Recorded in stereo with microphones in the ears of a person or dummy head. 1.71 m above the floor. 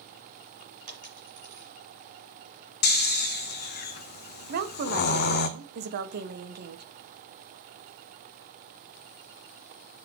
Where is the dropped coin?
35° right (ahead or behind), 2 m.